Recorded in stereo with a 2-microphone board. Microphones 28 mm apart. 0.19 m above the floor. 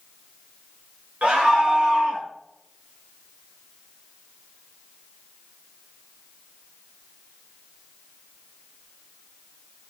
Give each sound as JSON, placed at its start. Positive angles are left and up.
{"t": 1.2, "sound": "a scream", "side_deg": -60, "distance_m": 3.0}